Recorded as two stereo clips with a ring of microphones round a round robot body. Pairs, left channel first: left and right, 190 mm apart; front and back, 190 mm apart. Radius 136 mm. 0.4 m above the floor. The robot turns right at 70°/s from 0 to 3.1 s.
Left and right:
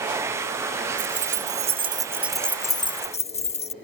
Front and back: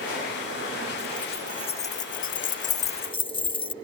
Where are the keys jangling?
95° right; by 3.7 s 50° left.